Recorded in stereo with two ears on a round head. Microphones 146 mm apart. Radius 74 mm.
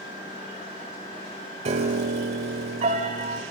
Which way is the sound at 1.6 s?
45° right (ahead or behind).